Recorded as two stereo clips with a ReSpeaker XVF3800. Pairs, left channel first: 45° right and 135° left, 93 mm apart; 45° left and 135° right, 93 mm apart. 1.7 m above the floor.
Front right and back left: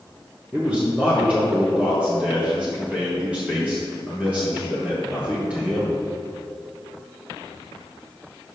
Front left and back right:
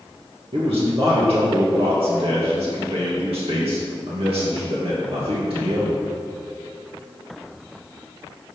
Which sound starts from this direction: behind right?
A man speaking, at 0.5 s.